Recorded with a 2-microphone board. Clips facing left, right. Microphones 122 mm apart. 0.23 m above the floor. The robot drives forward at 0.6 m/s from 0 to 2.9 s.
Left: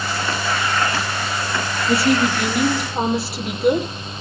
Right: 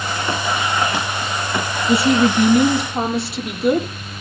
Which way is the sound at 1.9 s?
Centre (ahead or behind).